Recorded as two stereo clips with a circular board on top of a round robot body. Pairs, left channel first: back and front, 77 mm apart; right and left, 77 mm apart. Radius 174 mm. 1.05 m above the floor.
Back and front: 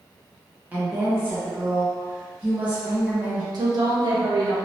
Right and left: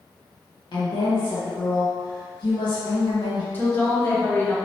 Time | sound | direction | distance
0.7 | a woman speaking | 70° right | 1.5 m
3.5 | a woman speaking | 25° right | 1.6 m